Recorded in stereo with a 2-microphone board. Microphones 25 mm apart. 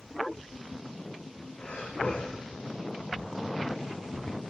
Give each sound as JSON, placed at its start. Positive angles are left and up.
{"t": 1.6, "sound": "breathing", "side_deg": 35, "distance_m": 4.0}